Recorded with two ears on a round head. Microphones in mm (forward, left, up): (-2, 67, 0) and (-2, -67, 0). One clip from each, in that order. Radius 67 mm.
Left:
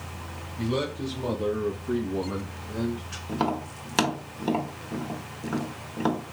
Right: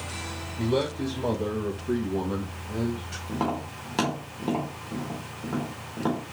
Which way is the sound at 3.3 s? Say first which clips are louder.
Left 2 dB; 50° left (ahead or behind).